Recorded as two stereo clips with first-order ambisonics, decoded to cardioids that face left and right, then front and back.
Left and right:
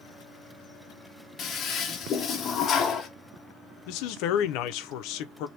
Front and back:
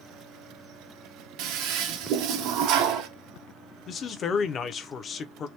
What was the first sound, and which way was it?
A toilet flushing, 150° left.